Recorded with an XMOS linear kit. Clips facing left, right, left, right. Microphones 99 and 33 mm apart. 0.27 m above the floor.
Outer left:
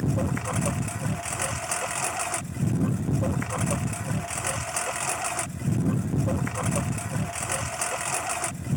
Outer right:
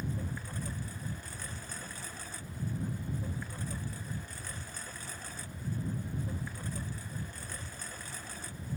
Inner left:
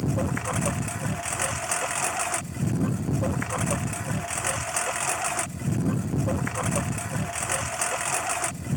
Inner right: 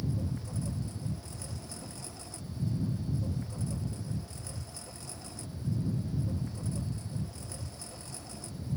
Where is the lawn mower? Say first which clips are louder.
Outer left 12 dB, inner left 10 dB; 85° left.